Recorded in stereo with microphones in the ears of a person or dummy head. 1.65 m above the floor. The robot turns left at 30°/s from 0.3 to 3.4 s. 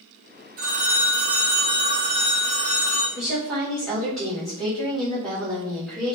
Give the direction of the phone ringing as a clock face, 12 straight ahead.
3 o'clock.